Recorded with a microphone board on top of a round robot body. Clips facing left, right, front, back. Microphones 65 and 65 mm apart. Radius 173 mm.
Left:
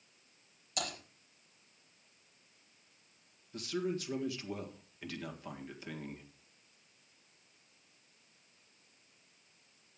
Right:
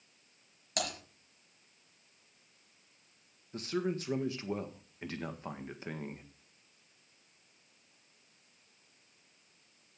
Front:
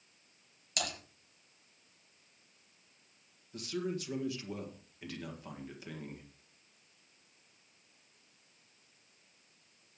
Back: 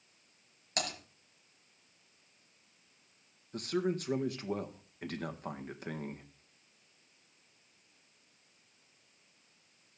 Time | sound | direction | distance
0.8 | typing on a keyboard | 130° right | 5 m
3.5 | a man speaking | 145° right | 1.8 m